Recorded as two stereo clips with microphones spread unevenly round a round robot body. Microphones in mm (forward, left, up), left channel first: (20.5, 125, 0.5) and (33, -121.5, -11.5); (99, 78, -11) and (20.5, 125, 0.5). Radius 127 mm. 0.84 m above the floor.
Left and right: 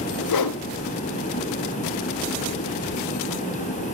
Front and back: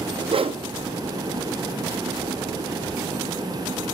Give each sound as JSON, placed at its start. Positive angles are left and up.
{"t": 0.3, "sound": "a whoosh", "azimuth_deg": 120, "distance_m": 0.6}